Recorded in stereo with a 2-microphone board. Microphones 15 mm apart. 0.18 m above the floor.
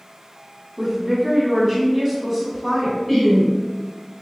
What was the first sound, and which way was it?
A woman speaking, 5° right (ahead or behind).